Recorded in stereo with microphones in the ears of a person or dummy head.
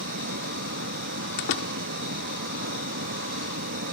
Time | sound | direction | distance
0.0 | running water | 55° right (ahead or behind) | ?
1.4 | a door slam | 65° left (ahead or behind) | ?